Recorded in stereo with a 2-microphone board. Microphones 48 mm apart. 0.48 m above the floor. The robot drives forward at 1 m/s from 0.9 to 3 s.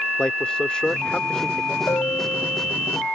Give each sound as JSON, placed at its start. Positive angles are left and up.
{"t": 0.2, "sound": "a man speaking", "side_deg": 20}
{"t": 1.9, "sound": "a bell", "side_deg": 80}